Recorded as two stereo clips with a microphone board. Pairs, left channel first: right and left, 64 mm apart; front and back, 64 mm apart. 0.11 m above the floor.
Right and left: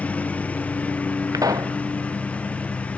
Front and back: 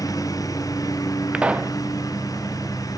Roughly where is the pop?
Left.